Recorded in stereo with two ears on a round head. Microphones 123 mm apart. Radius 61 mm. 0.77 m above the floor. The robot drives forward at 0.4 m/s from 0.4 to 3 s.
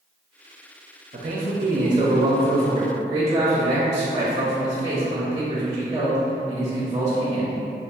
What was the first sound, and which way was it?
A man speaking, 45° right (ahead or behind).